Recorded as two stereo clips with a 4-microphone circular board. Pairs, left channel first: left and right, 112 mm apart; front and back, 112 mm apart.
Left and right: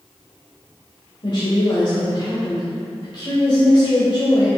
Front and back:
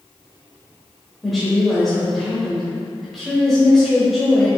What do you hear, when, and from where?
1.2 s a woman speaking: 90° left, 1.4 m